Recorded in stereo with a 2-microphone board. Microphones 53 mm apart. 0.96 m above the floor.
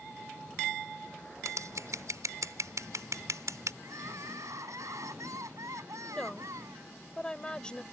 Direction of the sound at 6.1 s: 15° left (ahead or behind).